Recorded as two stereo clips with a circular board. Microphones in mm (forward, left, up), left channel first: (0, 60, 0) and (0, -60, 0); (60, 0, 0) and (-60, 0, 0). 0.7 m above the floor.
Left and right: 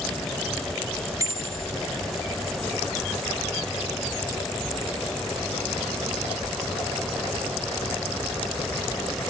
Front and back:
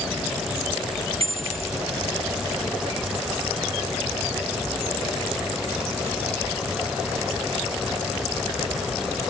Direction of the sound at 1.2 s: 150° right.